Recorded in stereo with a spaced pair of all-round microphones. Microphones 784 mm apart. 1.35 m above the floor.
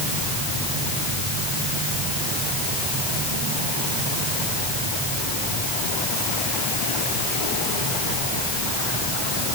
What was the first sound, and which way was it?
Only background noise.